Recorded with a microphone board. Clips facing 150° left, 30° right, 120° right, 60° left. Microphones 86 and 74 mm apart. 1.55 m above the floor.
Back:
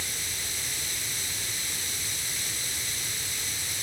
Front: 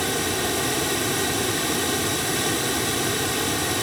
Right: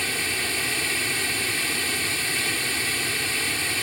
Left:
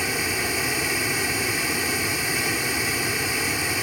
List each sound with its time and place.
0.0 s running water: 15° right